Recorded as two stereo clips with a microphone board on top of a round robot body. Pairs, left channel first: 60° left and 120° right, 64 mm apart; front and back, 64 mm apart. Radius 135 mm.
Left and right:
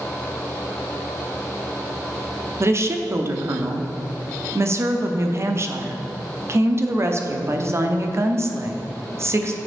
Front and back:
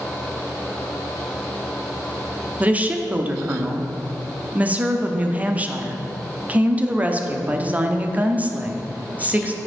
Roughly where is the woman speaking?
Behind right.